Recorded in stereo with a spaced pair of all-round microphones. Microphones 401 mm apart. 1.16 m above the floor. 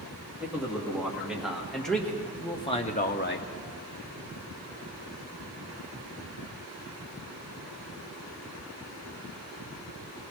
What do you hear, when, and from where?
0.4 s a man speaking: 5° right (ahead or behind), 3 m; by 3.5 s 30° left (ahead or behind), 0.7 m